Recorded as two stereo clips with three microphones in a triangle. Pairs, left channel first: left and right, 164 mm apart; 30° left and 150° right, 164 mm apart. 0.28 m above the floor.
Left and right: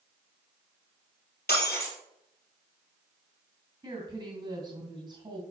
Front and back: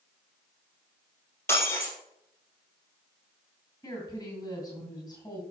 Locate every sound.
1.5 s breaking glass: 105° left, 2.5 m
3.8 s a woman speaking: 35° right, 2.5 m